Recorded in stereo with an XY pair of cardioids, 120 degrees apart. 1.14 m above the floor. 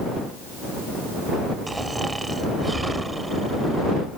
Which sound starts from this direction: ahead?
Snoring, at 1.7 s.